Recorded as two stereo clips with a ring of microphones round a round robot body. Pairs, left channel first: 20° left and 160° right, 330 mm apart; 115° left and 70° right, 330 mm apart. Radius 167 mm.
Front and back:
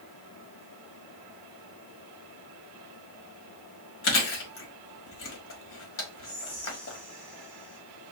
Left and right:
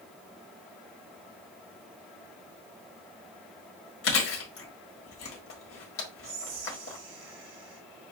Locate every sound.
4.0 s chewing: 70° left, 1.3 m
6.2 s whispering: 65° right, 2 m